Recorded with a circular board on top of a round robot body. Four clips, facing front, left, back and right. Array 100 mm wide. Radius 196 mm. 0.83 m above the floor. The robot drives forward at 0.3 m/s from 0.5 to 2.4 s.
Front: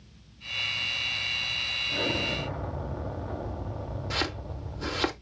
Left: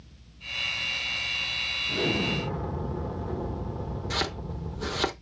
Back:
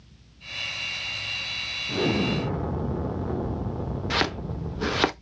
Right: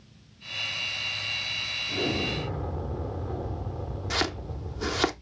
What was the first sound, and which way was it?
An explosion, 170° left.